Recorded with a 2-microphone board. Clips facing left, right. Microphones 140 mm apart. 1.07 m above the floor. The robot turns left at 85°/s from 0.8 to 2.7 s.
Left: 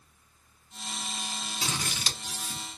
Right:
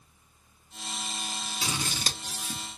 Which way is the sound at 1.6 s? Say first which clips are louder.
Right 1 dB; 10° right (ahead or behind).